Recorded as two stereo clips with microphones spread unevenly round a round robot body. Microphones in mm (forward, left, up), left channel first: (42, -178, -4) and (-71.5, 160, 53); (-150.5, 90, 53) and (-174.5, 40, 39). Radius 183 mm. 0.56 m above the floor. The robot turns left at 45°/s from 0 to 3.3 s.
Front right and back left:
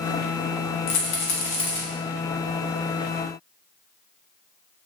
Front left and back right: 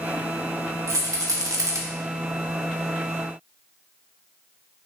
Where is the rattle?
115° right, 0.6 m; by 1.8 s 155° right, 0.6 m.